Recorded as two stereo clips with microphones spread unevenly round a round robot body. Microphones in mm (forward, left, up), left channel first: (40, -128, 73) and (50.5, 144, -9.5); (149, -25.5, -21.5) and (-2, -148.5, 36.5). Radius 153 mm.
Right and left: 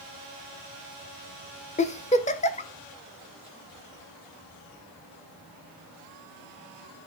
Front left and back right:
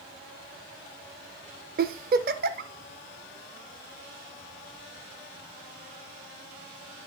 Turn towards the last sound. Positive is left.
turn(degrees=-165)